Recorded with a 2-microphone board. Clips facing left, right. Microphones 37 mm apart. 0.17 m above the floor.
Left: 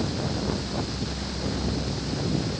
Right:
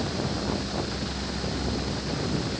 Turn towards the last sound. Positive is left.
No sound to turn to.